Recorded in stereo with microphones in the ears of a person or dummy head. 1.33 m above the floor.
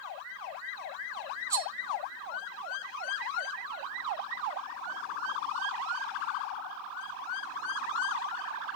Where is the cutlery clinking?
20° right (ahead or behind), 0.8 m.